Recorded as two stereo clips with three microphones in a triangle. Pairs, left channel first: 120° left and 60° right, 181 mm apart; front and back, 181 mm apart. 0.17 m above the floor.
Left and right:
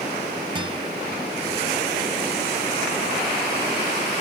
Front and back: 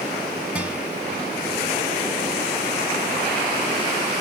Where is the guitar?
100° right, 1.5 m.